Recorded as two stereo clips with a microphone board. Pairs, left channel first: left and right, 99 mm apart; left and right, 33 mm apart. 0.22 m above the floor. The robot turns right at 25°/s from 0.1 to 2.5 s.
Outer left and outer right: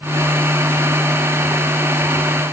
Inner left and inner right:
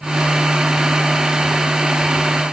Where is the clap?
No clap in this recording.